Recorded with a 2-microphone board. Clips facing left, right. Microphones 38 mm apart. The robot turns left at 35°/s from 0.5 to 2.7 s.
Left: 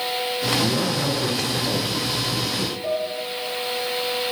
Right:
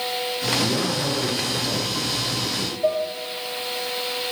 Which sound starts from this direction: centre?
A man speaking, at 0.6 s.